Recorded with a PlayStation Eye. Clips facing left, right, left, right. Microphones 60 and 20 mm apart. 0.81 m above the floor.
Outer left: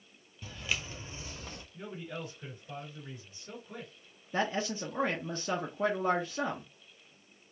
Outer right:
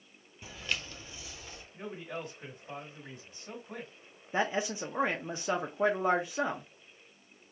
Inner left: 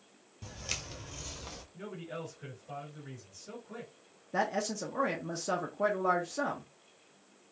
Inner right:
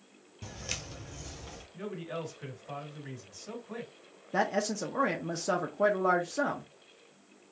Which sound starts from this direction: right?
A man speaking, at 1.7 s.